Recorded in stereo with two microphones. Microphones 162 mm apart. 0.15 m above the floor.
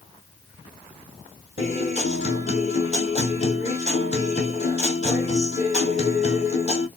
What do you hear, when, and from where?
1.6 s a guitar: 40° left (ahead or behind), 2 m